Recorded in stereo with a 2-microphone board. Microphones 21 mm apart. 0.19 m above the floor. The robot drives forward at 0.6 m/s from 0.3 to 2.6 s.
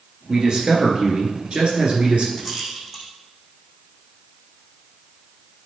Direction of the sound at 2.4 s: 5° right (ahead or behind).